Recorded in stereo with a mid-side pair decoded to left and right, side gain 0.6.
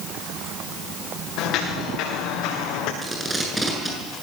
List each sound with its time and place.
1.4 s footsteps: 65° left, 7 m; by 2.9 s 70° left, 6.5 m
3.0 s tape being pulled: 10° right, 8.5 m